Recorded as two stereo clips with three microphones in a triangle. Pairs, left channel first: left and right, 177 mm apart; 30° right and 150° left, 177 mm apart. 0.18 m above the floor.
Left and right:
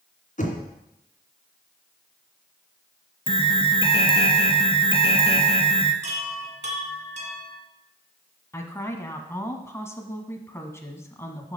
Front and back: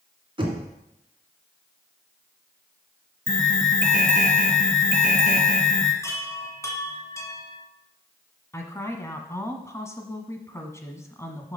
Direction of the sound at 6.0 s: 95° right.